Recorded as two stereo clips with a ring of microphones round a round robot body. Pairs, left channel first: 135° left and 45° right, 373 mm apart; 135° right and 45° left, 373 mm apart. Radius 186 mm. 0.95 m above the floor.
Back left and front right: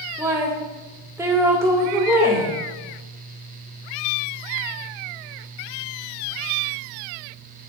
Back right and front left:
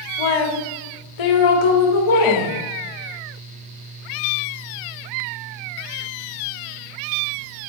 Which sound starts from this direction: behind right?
A woman speaking, at 0.2 s.